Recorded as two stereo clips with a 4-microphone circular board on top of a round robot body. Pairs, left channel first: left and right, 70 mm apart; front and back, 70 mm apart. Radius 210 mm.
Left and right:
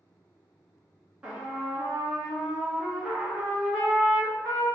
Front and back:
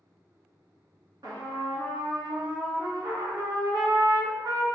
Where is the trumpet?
165° right, 1.4 m.